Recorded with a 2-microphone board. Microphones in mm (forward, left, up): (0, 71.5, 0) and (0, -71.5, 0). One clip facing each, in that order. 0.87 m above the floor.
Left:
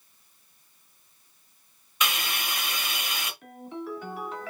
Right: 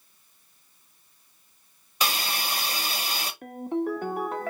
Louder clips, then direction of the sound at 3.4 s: Right 14 dB; 50° right (ahead or behind).